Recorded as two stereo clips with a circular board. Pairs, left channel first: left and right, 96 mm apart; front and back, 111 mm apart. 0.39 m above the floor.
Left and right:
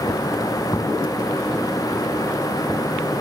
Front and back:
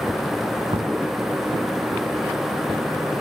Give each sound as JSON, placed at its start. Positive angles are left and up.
{"t": 0.7, "sound": "knocking", "azimuth_deg": 150}